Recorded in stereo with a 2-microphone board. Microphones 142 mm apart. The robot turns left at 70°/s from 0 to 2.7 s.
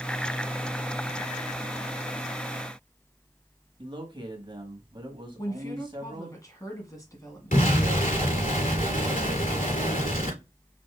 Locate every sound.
3.8 s a man speaking: 35° right (ahead or behind), 1.4 m
5.4 s a woman speaking: 25° left (ahead or behind), 1.6 m
7.5 s an explosion: 70° left (ahead or behind), 3.5 m